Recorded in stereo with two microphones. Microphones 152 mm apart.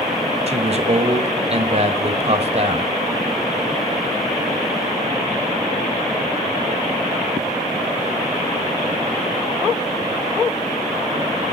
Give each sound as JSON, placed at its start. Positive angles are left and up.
{"t": 0.5, "sound": "a man speaking", "side_deg": -45, "distance_m": 1.4}